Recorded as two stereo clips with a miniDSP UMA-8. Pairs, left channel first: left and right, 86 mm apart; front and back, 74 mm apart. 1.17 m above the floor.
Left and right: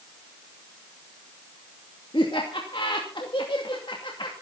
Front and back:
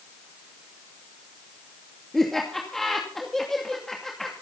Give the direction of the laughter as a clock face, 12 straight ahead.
9 o'clock.